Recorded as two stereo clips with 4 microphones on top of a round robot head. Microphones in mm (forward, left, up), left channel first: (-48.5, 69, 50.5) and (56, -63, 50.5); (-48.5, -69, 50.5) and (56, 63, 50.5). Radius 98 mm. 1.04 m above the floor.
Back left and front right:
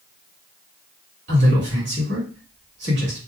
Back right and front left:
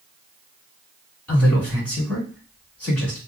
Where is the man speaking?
45° right, 1.9 m.